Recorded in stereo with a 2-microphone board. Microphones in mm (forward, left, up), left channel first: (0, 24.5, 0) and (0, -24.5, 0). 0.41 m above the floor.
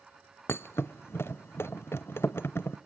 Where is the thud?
55° left (ahead or behind), 0.7 m.